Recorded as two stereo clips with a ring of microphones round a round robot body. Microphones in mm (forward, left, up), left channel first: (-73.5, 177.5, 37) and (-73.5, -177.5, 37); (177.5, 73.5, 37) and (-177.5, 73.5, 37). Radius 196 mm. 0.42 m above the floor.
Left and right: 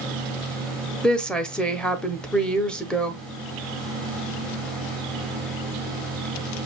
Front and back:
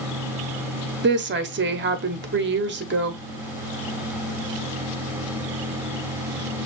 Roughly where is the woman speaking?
Behind.